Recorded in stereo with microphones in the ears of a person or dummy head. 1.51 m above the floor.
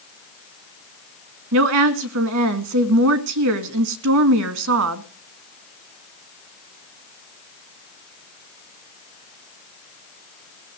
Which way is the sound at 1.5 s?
75° right (ahead or behind).